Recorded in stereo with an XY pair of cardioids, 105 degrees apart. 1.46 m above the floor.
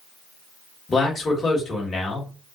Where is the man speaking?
35° left, 1.4 m.